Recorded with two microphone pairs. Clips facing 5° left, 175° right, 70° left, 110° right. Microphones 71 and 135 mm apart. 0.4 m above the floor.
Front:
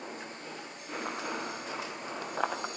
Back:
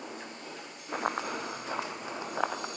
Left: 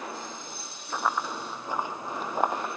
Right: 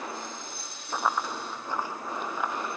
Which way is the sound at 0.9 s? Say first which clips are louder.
Back 4 dB, even; 165° left.